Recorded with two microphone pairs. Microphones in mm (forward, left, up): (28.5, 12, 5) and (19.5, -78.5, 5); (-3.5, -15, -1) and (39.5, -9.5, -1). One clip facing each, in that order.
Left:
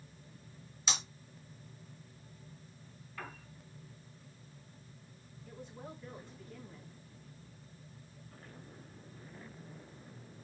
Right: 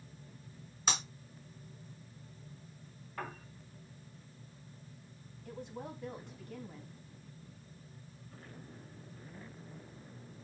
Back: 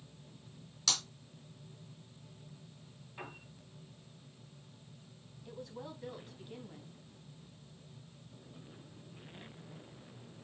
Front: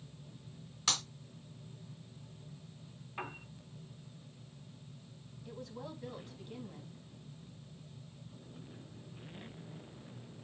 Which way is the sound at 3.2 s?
50° right.